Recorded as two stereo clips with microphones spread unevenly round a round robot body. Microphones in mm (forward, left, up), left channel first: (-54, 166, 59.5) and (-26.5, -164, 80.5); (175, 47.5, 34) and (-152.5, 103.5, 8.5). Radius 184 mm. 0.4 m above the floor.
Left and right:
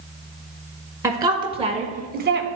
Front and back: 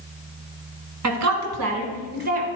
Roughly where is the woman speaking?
Behind.